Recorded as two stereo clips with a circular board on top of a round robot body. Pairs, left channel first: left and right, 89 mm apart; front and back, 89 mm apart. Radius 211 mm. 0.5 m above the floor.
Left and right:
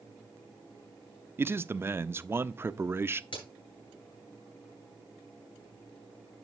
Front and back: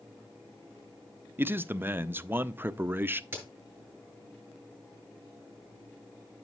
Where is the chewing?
I don't hear chewing.